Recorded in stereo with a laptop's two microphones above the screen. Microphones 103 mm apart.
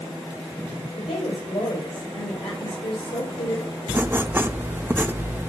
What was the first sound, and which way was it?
A woman speaking, 65° left (ahead or behind).